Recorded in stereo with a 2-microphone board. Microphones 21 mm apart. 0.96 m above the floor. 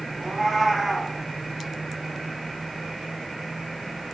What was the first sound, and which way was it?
A cat meowing, 15° left (ahead or behind).